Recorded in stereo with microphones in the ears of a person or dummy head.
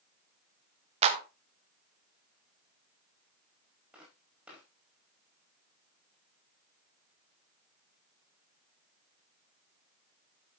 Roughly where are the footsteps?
Centre.